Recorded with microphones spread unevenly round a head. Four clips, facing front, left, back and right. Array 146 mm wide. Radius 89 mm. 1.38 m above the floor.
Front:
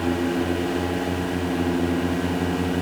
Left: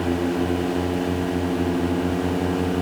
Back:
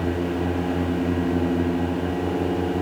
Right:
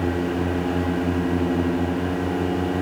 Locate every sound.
Only background noise.